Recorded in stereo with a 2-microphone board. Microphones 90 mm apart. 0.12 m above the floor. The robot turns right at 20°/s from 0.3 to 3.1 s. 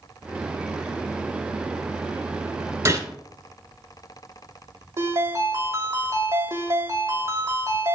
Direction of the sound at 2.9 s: 35° right (ahead or behind).